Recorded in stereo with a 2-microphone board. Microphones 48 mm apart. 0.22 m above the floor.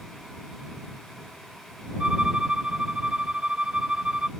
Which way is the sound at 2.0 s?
25° right (ahead or behind).